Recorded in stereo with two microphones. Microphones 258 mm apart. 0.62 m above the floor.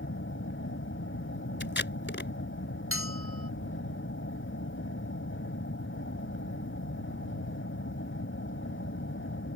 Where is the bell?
55° right (ahead or behind).